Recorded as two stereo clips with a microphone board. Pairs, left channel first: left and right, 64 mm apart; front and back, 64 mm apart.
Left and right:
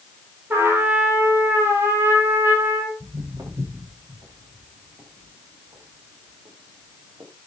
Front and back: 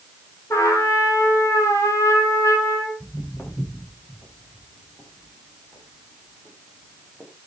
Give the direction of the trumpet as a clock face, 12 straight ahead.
1 o'clock.